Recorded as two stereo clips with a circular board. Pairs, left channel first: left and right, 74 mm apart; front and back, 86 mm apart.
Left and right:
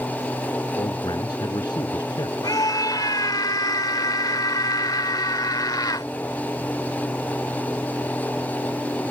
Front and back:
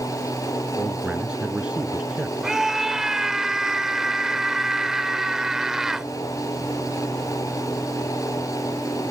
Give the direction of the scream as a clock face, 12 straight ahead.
9 o'clock.